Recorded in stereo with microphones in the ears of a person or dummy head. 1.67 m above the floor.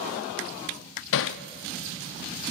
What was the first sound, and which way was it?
Hammering, 70° left (ahead or behind).